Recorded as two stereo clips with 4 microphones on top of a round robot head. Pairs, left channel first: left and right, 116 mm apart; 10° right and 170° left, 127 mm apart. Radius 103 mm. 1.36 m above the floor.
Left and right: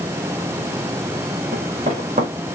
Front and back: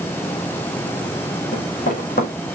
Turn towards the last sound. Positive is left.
turn(degrees=-40)